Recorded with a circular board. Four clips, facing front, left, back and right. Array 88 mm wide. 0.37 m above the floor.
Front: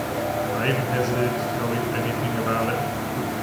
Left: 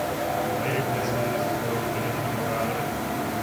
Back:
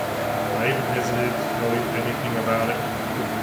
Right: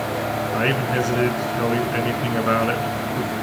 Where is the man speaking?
80° right, 4.5 m.